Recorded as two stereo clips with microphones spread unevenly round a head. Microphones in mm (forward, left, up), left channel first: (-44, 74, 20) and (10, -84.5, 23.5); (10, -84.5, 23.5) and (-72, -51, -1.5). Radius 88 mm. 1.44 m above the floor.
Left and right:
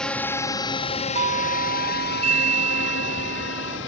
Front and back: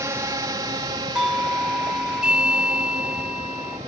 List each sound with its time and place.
0.0 s a drone: 165° right; by 3.9 s 100° left
1.1 s a doorbell: 120° right